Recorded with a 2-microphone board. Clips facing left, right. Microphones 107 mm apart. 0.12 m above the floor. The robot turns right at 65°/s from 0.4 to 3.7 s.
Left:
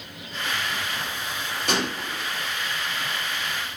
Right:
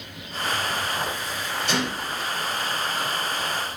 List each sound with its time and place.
1.7 s a gunshot: 70° left, 4.5 m; by 2.3 s 110° left, 4.5 m